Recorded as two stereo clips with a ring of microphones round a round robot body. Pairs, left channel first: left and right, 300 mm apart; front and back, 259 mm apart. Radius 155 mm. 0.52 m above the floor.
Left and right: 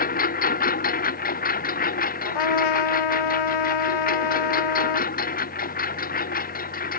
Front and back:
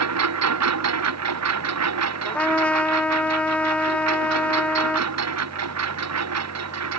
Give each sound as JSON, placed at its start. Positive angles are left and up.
{"t": 0.0, "sound": "a lawn mower", "azimuth_deg": 155}
{"t": 2.2, "sound": "a trumpet", "azimuth_deg": 85}